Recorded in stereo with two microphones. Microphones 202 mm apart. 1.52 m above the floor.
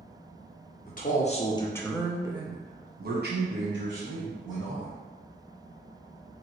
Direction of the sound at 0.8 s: 45° left (ahead or behind).